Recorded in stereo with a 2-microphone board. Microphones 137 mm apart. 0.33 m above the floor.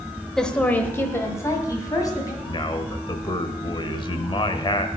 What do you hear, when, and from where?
0.4 s a woman speaking: 5° left (ahead or behind), 0.9 m; by 2.3 s 30° left (ahead or behind), 2 m
2.4 s a man speaking: 35° left (ahead or behind), 1.1 m